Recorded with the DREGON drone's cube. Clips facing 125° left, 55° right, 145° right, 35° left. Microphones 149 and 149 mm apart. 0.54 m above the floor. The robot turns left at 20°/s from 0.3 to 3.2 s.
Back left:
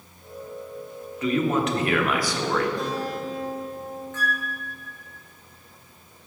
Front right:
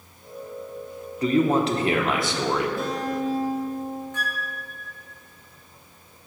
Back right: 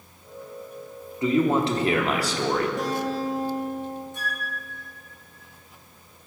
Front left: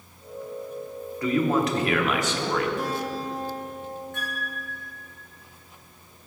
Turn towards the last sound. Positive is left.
turn(degrees=20)